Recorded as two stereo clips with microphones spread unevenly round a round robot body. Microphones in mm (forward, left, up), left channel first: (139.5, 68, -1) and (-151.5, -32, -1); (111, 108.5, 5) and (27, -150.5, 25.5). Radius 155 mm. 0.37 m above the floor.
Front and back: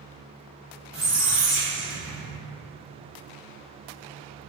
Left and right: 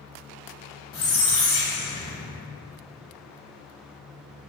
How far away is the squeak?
About 1.0 m.